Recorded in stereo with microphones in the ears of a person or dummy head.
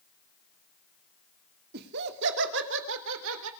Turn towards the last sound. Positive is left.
turn(degrees=-80)